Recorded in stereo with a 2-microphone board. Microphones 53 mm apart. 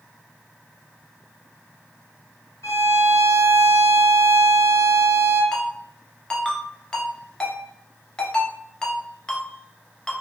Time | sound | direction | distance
2.6 | a violin | 60° left (ahead or behind) | 1.6 m
5.5 | a ringtone | 10° left (ahead or behind) | 0.9 m